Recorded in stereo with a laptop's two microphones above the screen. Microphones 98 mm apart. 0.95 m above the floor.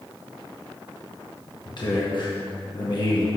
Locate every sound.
1.6 s a man speaking: 50° left (ahead or behind), 1.2 m